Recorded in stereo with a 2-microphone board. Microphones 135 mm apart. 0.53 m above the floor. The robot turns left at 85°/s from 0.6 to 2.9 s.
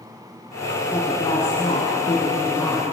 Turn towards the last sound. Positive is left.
turn(degrees=5)